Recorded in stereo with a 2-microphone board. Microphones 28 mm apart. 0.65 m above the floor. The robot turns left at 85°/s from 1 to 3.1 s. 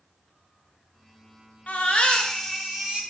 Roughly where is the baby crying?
Left.